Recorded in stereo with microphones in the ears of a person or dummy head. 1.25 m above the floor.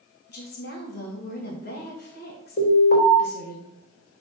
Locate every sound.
0.3 s a woman speaking: 50° left (ahead or behind), 2 m
2.6 s an alarm: 50° left (ahead or behind), 3 m